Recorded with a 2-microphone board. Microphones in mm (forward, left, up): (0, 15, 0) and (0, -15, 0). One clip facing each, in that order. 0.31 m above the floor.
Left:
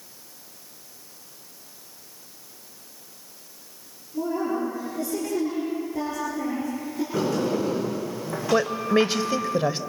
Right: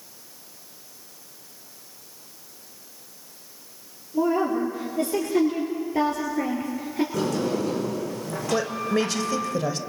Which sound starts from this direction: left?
A woman speaking, at 8.5 s.